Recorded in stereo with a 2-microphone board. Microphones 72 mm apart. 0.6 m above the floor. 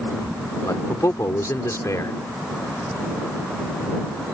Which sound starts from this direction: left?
A man speaking, at 0.7 s.